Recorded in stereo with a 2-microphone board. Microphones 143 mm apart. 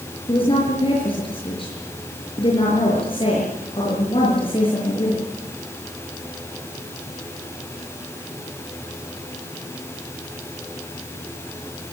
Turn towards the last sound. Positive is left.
turn(degrees=40)  # may be behind; listen again after turning